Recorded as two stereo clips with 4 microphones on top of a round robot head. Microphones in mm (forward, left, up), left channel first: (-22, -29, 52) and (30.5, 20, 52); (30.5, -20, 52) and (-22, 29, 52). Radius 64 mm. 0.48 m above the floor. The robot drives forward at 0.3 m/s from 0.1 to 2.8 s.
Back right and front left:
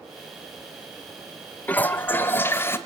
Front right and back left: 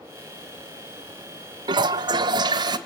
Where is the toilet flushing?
155° left, 0.6 m; by 2.8 s 165° left, 0.9 m.